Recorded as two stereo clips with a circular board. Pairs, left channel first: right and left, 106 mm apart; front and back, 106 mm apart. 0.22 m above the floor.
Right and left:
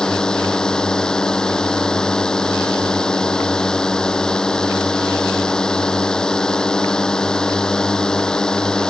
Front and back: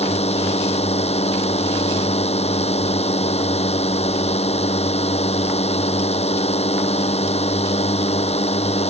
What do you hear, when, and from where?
0.0 s a drone: 5° right